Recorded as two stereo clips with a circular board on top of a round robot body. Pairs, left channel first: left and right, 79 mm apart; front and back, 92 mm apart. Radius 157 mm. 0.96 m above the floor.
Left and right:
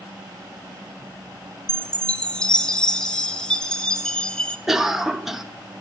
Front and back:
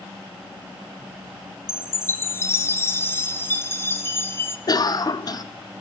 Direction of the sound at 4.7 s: 5° right.